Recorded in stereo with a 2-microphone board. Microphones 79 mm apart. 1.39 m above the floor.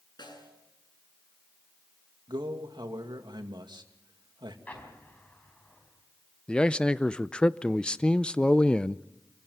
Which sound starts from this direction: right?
A man speaking, at 2.3 s.